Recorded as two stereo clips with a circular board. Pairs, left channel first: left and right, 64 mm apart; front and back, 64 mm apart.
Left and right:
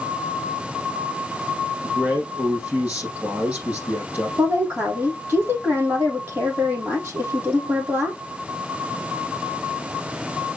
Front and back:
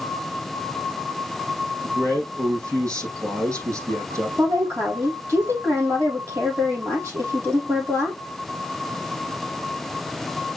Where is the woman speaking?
140° right, 4.5 m.